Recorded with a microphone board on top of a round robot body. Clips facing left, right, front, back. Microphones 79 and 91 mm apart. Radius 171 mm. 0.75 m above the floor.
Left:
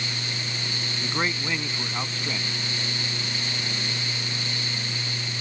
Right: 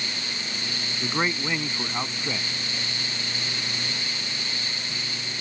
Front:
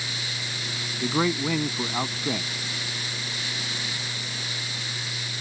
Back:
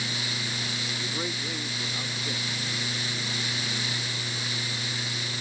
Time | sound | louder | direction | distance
1.0 | a man speaking | right 2 dB, front 13 dB | 5° right | ?